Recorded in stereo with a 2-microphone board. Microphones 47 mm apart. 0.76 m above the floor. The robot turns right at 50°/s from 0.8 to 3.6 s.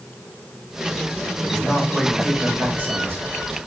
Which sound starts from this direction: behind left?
A man speaking, at 1.4 s.